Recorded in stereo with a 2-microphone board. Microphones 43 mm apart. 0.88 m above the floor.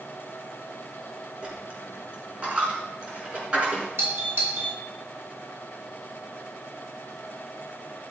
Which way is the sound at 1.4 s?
25° right (ahead or behind).